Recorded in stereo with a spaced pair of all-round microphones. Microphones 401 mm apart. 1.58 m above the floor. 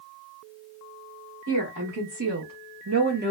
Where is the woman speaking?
50° right (ahead or behind), 1.2 m; by 3.3 s 20° right (ahead or behind), 0.5 m.